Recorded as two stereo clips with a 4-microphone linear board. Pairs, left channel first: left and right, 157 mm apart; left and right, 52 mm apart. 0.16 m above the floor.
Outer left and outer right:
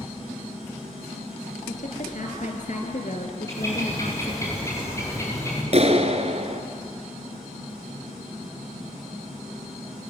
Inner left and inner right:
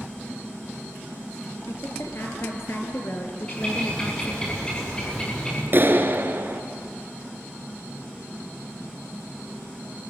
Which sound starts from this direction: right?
A clap, at 5.7 s.